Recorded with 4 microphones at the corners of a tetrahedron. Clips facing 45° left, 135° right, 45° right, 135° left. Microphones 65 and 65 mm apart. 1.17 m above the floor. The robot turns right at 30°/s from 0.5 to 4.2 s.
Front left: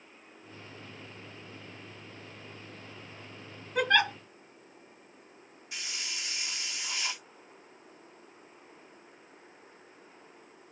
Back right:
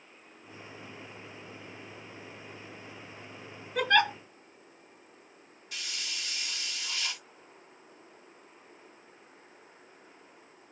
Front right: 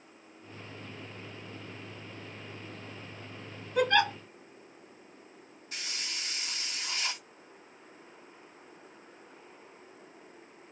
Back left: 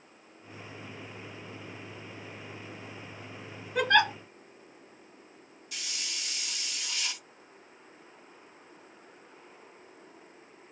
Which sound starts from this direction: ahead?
A hiss, at 5.7 s.